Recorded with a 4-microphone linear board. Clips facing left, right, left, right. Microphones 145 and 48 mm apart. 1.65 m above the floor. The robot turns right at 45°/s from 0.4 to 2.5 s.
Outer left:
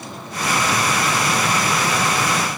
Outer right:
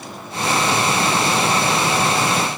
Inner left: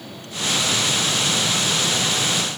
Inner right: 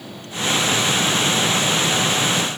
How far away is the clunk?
I don't hear a clunk.